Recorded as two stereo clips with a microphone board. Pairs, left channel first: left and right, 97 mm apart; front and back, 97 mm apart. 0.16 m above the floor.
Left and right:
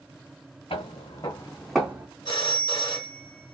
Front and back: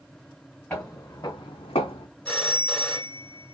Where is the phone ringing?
80° left, 1.4 m.